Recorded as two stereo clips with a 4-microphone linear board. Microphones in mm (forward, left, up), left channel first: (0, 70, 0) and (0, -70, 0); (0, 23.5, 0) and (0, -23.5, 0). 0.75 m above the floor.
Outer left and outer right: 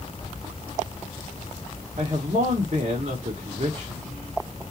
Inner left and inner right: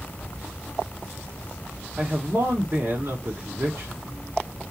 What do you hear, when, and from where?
2.0 s a man speaking: 60° right (ahead or behind), 1.3 m